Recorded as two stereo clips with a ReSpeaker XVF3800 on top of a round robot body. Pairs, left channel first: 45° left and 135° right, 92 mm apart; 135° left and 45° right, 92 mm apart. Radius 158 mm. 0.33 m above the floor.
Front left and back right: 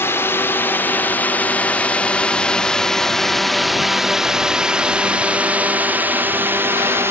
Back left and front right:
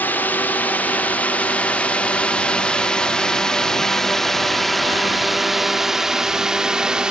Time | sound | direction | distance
0.0 | a drone | 85° left | ?